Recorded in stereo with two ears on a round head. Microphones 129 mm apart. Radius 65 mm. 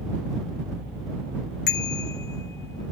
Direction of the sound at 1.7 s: 85° left.